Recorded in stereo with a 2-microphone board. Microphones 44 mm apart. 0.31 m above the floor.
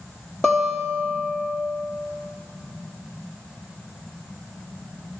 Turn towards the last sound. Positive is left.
turn(degrees=5)  # may be behind; listen again after turning